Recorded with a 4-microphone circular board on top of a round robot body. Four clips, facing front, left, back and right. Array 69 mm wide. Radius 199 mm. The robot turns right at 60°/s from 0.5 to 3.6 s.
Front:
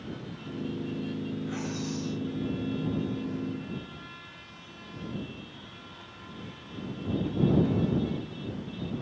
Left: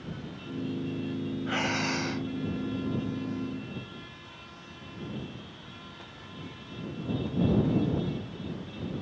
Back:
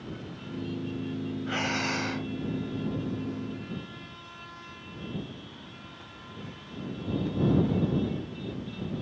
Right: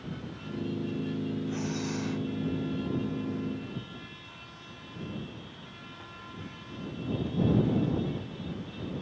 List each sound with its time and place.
1.5 s breathing: 120° left; by 2.3 s 170° left